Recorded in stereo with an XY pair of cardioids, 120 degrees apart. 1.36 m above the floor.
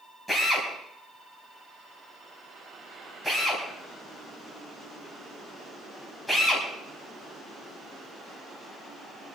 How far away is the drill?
About 5 m.